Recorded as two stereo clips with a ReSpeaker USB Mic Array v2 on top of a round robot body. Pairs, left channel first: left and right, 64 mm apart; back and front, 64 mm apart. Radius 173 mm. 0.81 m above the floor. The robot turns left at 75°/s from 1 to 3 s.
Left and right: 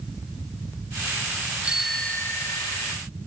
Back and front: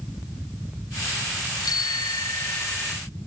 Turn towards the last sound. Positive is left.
turn(degrees=95)